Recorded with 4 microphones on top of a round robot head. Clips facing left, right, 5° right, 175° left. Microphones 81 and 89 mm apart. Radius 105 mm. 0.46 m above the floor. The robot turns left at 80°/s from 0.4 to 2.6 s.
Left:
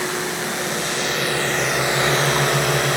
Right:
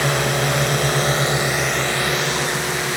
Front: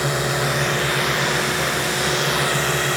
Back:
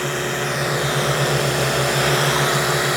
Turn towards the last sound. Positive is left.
turn(degrees=105)